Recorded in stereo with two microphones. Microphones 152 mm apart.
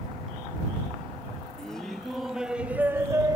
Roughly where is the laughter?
Centre.